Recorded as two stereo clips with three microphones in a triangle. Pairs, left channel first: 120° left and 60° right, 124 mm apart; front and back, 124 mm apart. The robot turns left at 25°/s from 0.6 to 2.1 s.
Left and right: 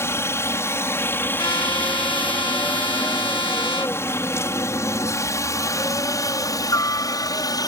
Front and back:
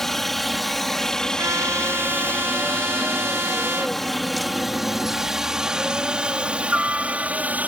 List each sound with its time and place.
0.0 s a helicopter: 85° left; by 7.7 s 115° left
1.4 s a trumpet: 135° left; by 4.0 s 120° left